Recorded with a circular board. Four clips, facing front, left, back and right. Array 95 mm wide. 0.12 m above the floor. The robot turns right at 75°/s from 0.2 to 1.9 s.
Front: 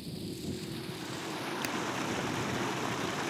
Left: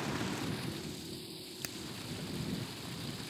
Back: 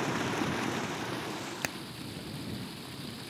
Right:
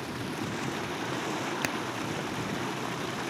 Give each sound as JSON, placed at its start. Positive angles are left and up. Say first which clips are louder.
{"t": 0.0, "sound": "running water", "louder": "right 3 dB, back 9 dB", "azimuth_deg": -175}
{"t": 1.6, "sound": "hammering", "louder": "right 14 dB, even", "azimuth_deg": -115}